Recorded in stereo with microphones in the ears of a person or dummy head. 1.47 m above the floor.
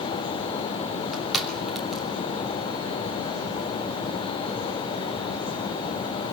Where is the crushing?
Centre (ahead or behind), 2.5 m.